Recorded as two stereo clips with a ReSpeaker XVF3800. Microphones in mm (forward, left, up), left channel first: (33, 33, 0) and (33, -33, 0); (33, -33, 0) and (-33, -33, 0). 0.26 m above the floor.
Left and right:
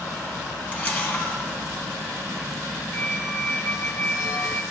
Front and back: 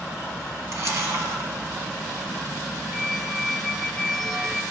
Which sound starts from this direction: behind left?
A camera shutter, at 0.7 s.